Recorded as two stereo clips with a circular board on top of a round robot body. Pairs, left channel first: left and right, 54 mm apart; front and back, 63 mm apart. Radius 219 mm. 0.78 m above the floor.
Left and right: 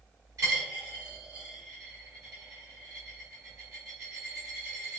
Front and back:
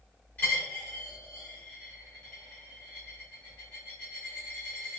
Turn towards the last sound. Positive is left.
turn(degrees=-65)